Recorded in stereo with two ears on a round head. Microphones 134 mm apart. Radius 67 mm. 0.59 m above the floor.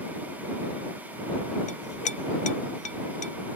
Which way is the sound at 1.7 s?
45° left (ahead or behind).